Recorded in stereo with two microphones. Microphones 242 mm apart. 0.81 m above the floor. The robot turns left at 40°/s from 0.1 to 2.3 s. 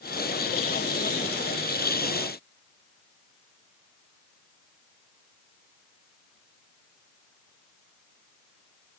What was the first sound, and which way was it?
Only background noise.